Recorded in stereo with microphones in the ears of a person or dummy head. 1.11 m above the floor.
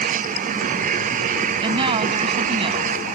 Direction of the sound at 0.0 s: 45° right (ahead or behind).